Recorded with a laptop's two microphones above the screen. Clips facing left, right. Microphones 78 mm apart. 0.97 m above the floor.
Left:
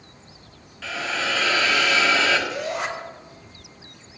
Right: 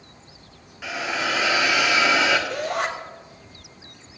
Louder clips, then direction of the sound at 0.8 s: Right 1 dB; 15° right (ahead or behind).